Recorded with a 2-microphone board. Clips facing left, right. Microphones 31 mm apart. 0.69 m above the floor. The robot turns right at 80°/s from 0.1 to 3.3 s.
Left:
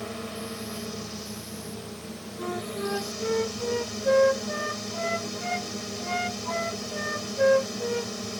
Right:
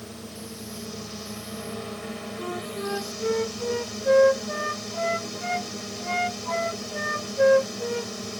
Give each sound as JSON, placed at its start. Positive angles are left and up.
{"t": 0.0, "sound": "a drone", "azimuth_deg": 100}
{"t": 2.4, "sound": "a flute", "side_deg": 5}